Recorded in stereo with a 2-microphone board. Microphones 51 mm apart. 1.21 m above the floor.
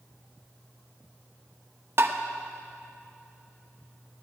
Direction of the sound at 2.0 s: 50° right (ahead or behind).